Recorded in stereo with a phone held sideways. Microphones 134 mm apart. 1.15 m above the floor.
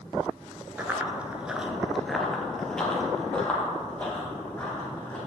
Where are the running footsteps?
15° right (ahead or behind), 1.2 m; by 5.2 s 10° left (ahead or behind), 4 m.